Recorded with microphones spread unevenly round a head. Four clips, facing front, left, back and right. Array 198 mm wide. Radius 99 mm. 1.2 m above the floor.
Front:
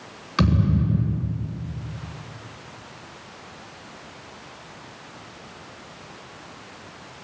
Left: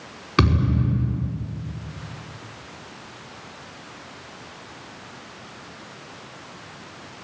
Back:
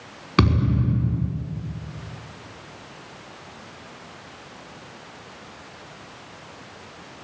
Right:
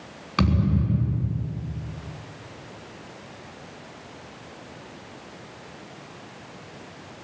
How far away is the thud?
About 5 m.